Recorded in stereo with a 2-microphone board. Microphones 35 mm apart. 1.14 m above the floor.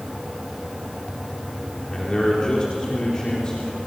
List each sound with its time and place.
1.9 s a man speaking: 20° left (ahead or behind), 4 m